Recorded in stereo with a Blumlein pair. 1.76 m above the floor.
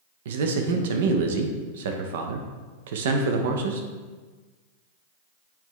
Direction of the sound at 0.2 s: 55° right.